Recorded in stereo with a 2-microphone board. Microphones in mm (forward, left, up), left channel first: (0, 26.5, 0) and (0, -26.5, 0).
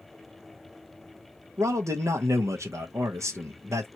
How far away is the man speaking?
About 0.8 m.